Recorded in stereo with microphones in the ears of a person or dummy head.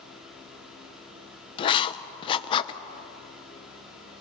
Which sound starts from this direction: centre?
A fan, at 0.0 s.